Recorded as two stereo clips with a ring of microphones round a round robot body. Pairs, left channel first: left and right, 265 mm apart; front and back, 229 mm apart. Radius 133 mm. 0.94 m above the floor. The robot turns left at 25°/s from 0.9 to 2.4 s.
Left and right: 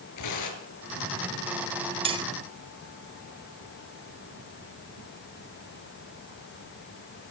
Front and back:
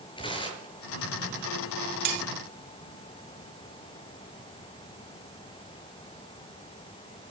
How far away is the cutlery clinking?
About 1.0 m.